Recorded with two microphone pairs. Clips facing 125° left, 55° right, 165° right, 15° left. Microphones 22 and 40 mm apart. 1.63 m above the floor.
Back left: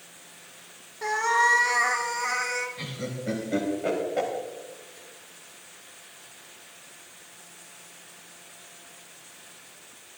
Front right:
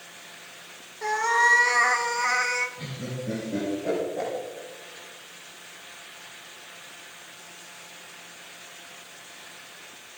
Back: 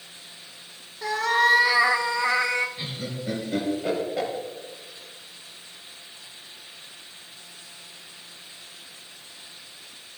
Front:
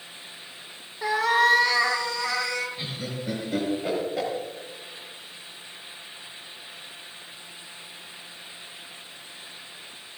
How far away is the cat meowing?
About 0.8 m.